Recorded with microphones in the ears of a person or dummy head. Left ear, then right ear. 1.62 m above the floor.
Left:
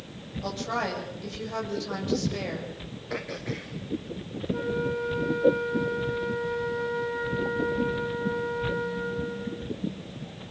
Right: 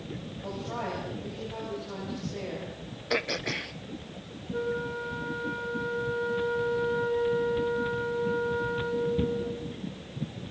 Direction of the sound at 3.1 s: 35° right (ahead or behind).